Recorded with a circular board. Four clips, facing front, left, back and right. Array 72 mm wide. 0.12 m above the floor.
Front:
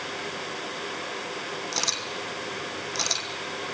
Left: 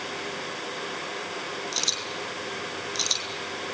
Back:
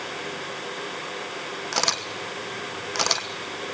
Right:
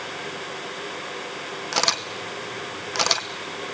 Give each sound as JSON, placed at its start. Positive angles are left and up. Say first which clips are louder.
{"t": 1.7, "sound": "a camera shutter", "louder": "right 7 dB, back 4 dB", "azimuth_deg": -120, "distance_m": 1.3}